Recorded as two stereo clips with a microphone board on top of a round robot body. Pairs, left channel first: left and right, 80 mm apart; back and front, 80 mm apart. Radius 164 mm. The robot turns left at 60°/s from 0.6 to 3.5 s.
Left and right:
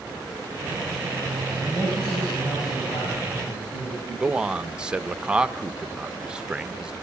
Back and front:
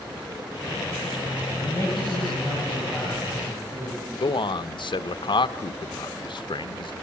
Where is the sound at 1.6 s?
165° right, 7 m; by 4.0 s 80° left, 7 m.